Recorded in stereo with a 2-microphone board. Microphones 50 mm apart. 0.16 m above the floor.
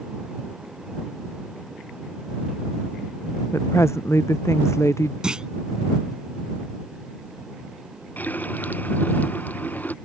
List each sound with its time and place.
3.5 s a woman speaking: 65° left (ahead or behind)
5.2 s a clunk: 15° right (ahead or behind)
8.2 s a running tap: 35° left (ahead or behind)